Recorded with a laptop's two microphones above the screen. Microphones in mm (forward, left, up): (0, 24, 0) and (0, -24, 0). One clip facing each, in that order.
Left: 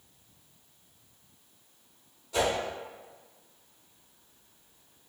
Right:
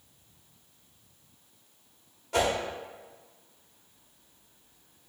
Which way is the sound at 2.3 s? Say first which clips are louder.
Right 1 dB; 65° right (ahead or behind).